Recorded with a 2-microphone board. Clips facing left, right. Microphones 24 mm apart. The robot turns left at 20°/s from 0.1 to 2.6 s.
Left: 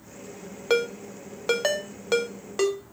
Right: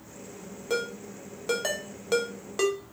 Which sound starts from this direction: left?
A ringtone, at 0.7 s.